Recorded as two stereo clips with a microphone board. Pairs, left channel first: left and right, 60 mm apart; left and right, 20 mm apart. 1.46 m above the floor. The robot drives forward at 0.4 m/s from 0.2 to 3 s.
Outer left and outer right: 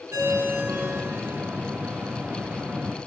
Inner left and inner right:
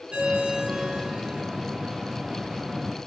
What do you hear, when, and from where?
0.1 s a ringtone: 45° right (ahead or behind), 1.8 m; by 1.4 s 40° right (ahead or behind), 2 m